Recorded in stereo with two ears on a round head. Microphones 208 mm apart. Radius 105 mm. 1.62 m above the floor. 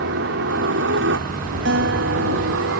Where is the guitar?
55° right (ahead or behind).